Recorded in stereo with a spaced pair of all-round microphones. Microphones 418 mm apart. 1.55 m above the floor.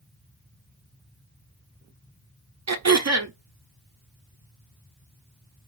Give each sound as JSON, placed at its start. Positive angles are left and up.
{"t": 2.7, "sound": "throat clearing", "side_deg": -40, "distance_m": 0.7}